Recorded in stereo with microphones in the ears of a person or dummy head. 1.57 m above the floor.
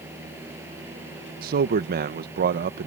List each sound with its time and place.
0.0 s a fan: 10° right (ahead or behind)
1.4 s a man speaking: 45° right (ahead or behind)